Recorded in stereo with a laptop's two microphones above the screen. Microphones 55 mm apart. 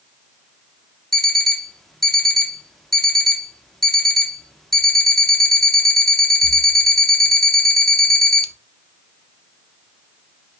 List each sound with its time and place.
1.1 s an alarm clock: 5° left (ahead or behind), 0.6 m